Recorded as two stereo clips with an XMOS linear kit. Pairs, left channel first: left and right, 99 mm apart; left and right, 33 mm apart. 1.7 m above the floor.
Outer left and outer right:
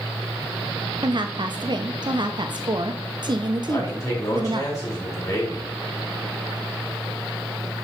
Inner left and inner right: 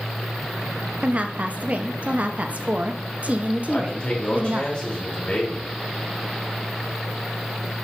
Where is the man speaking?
35° left (ahead or behind), 3.5 m.